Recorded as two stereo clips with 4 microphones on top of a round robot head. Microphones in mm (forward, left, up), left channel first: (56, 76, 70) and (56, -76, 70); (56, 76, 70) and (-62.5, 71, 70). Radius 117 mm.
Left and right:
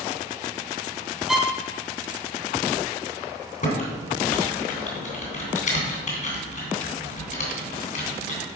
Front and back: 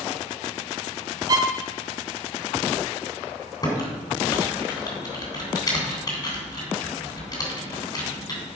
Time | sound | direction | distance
1.3 | a violin | 175° right | 0.8 m
3.6 | typing on a keyboard | 60° left | 3 m